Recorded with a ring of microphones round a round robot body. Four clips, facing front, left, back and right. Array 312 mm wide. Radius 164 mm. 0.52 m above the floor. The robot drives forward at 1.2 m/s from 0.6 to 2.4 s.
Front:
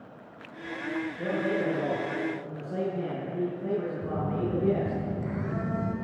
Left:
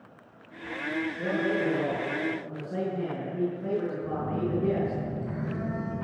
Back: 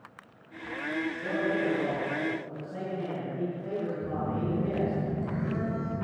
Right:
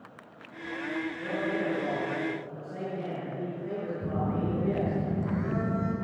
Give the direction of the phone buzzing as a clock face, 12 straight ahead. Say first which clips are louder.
Even, front 1 dB; 3 o'clock.